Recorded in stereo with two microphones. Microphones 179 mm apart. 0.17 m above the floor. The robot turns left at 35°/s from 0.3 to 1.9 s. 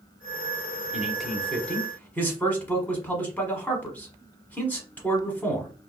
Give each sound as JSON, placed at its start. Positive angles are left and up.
{"t": 0.9, "sound": "a man speaking", "side_deg": -5, "distance_m": 1.0}